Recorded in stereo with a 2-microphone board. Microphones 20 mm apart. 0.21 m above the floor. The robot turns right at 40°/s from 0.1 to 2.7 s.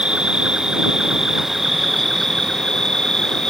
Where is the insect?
65° right; by 3.5 s 35° left.